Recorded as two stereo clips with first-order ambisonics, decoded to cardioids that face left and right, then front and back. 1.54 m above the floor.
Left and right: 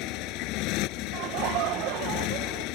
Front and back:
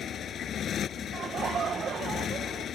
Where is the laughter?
115° right.